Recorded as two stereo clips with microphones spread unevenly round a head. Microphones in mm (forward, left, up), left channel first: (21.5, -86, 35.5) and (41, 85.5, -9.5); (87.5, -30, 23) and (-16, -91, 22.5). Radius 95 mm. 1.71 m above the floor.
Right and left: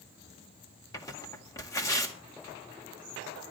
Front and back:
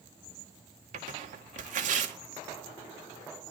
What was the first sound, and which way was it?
Tearing paper, 160° right.